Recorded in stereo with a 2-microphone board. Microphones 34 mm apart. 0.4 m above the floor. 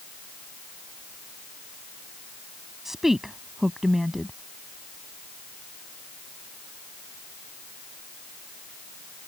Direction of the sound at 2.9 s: 10° right (ahead or behind).